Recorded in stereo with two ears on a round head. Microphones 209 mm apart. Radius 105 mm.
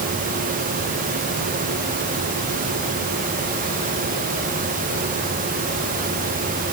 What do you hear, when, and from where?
Only background noise.